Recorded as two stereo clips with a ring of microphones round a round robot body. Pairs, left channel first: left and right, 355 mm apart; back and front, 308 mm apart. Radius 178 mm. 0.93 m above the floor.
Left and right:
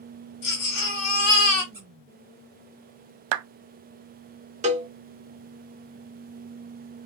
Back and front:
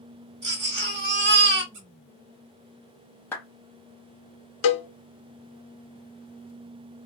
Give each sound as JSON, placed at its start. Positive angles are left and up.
{"t": 0.4, "sound": "a baby crying", "azimuth_deg": 55, "distance_m": 1.5}
{"t": 1.7, "sound": "a squeak", "azimuth_deg": -10, "distance_m": 1.0}
{"t": 3.3, "sound": "a clap", "azimuth_deg": -95, "distance_m": 0.5}
{"t": 4.6, "sound": "a cowbell", "azimuth_deg": -160, "distance_m": 0.6}